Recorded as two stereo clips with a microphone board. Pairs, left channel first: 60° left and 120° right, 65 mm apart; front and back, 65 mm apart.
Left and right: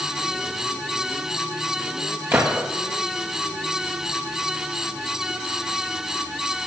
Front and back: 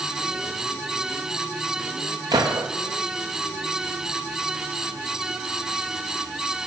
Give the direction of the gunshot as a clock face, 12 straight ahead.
6 o'clock.